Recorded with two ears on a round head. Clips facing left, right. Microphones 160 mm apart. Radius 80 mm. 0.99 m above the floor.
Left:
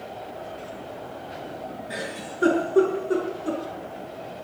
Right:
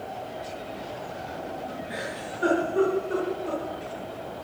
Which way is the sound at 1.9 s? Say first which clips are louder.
Even; 55° left (ahead or behind).